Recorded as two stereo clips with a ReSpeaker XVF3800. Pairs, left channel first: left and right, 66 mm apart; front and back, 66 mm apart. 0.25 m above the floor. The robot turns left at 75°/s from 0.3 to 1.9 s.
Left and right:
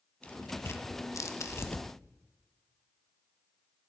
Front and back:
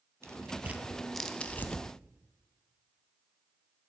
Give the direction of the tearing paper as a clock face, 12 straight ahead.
7 o'clock.